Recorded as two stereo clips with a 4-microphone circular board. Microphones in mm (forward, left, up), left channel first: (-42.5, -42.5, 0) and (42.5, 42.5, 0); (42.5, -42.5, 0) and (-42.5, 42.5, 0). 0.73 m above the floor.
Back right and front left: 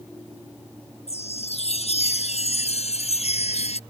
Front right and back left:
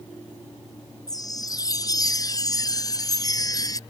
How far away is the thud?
No thud in this recording.